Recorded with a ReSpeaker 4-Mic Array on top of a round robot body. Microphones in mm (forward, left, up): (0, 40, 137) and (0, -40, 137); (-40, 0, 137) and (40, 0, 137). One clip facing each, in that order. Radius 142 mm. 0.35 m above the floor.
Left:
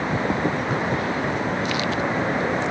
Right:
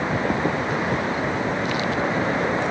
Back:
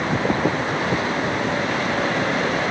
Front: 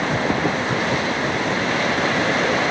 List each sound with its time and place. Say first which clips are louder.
0.7 s a splash: even, front 2 dB; 45° left, 3 m